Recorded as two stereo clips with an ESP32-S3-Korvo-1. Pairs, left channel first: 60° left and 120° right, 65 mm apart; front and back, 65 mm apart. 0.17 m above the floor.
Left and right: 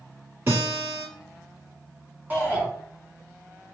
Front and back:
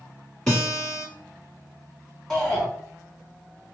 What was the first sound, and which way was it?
A guitar, 80° right.